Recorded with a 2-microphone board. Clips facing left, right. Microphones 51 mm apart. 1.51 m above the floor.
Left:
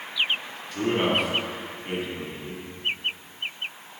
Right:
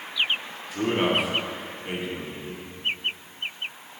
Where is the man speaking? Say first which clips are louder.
Even; 10° right (ahead or behind), 3 m.